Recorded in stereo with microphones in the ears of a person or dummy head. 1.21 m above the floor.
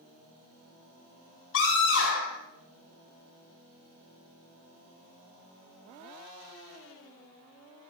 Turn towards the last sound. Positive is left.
turn(degrees=70)  # may be behind; listen again after turning